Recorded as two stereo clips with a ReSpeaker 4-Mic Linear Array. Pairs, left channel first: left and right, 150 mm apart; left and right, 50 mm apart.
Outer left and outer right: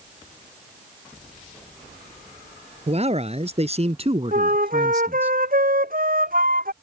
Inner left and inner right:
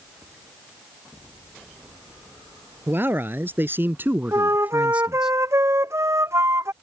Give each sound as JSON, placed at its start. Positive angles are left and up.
{"t": 2.9, "sound": "a man speaking", "side_deg": -45}
{"t": 4.3, "sound": "a flute", "side_deg": -75}